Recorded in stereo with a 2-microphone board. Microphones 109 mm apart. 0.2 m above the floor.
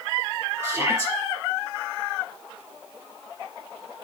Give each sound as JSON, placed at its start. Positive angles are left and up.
{"t": 0.6, "sound": "a shout", "side_deg": -25, "distance_m": 5.0}